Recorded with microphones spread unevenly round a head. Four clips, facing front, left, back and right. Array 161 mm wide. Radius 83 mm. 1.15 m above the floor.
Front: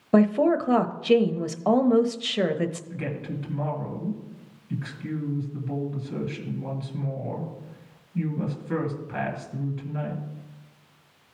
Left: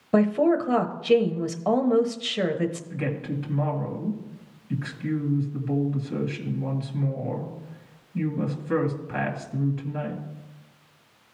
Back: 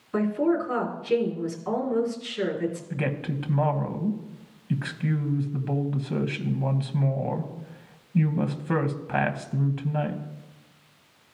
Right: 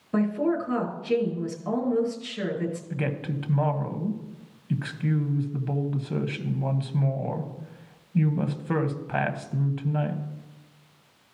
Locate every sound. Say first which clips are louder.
0.1 s a woman speaking: left 4 dB, front 4 dB; 30° left, 1.0 m
2.9 s a woman speaking: left 1 dB, back 3 dB; 140° right, 1.3 m